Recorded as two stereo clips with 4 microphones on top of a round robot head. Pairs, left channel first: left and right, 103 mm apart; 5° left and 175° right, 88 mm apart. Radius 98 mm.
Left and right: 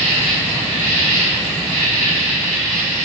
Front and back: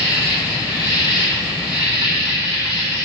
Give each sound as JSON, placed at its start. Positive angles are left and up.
{"t": 0.0, "sound": "an insect", "azimuth_deg": -105, "distance_m": 1.7}